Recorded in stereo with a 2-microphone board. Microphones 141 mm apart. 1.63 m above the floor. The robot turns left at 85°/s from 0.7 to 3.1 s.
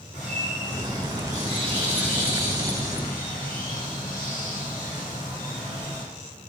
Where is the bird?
60° right, 1.3 m; by 6.0 s 95° left, 1.3 m.